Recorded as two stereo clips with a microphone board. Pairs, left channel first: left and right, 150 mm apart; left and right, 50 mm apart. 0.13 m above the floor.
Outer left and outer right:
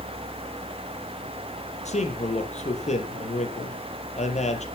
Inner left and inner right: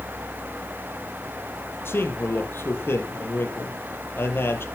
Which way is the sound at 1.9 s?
50° left (ahead or behind).